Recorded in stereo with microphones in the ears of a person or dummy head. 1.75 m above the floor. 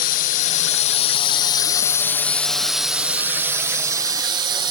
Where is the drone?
50° left (ahead or behind); by 4.7 s 30° right (ahead or behind).